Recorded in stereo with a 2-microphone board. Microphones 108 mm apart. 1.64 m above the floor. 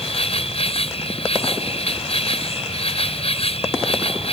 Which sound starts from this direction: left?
An insect, at 0.0 s.